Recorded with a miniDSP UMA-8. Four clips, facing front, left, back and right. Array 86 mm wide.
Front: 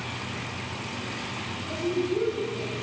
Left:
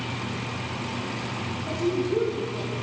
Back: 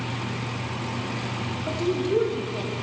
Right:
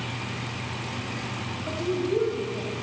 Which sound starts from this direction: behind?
A woman speaking, at 1.7 s.